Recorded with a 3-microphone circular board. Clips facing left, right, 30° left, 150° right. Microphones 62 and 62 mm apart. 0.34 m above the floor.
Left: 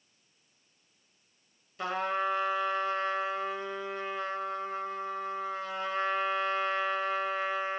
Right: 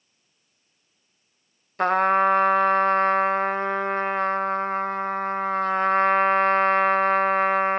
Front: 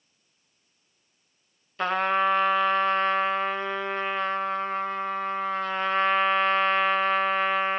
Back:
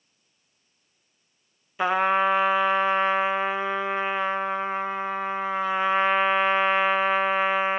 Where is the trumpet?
75° right, 0.5 m.